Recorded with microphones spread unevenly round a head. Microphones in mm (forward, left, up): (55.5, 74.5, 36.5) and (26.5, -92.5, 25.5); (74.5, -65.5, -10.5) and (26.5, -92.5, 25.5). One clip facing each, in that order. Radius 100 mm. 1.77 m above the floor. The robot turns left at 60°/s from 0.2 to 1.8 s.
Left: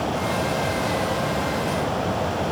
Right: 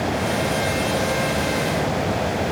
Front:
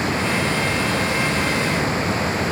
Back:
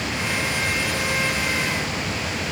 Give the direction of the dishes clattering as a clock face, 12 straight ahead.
No dishes clattering in this recording.